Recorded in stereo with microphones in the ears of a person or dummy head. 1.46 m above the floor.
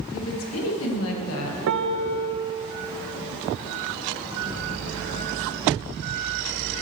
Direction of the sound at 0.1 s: 80° left.